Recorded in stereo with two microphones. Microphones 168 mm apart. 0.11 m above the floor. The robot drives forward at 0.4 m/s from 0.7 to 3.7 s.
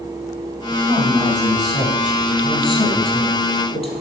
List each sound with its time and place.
0.7 s a woman speaking: 25° left (ahead or behind), 4.5 m; by 3.9 s 35° left (ahead or behind), 3.5 m